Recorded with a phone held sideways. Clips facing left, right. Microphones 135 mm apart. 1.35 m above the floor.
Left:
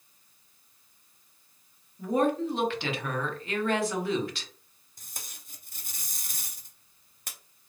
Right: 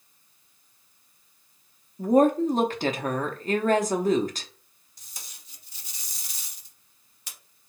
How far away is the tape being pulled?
About 0.7 m.